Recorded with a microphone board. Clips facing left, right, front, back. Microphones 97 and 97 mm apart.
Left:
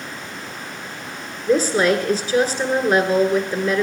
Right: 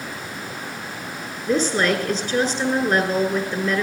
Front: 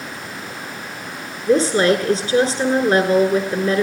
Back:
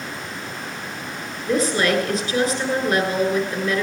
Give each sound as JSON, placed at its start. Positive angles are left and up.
{"t": 1.5, "sound": "a woman speaking", "azimuth_deg": 20, "distance_m": 1.2}